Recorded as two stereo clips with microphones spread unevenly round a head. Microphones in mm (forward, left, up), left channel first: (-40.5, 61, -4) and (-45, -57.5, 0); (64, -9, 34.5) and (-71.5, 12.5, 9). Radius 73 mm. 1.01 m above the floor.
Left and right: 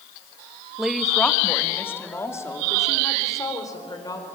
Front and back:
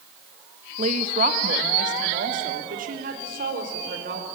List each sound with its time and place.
0.8 s a woman speaking: 175° right, 1.3 m; by 4.3 s 145° left, 5 m